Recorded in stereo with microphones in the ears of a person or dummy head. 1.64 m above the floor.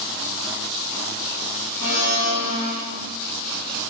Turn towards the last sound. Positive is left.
turn(degrees=50)  # may be behind; listen again after turning